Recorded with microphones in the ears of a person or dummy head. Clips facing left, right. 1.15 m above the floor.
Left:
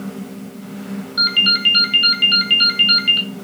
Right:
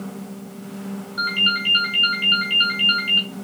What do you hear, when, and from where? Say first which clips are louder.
1.2 s a ringtone: left 3 dB; 60° left (ahead or behind), 1.2 m